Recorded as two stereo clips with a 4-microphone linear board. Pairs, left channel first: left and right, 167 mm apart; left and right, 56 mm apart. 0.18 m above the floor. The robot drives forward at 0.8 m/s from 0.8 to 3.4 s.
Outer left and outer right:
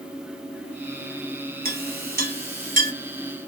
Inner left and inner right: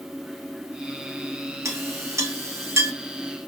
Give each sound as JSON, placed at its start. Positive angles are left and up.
{"t": 1.6, "sound": "a clink", "side_deg": -65, "distance_m": 2.0}